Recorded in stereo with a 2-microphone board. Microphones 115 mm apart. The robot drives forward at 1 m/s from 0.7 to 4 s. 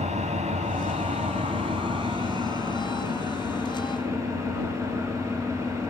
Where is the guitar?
No guitar in this recording.